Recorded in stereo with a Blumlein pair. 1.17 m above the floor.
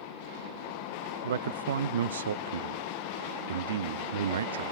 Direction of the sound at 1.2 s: 65° right.